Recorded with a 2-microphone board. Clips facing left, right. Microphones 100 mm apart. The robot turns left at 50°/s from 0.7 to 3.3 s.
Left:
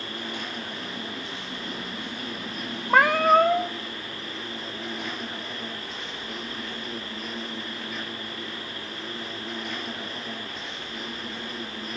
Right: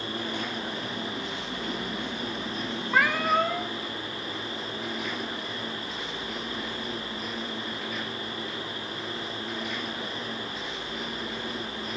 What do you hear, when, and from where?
0.0 s an insect: 50° right, 5.5 m; by 12.0 s straight behind, 5.5 m
2.9 s a cat meowing: 50° left (ahead or behind), 0.7 m; by 3.7 s 45° left (ahead or behind), 0.7 m